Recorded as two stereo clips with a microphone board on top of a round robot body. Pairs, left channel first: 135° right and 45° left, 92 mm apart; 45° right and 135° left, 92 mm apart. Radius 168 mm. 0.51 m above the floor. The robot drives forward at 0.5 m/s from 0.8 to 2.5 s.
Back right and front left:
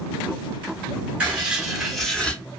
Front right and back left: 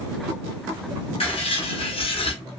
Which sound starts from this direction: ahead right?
Writing, at 1.2 s.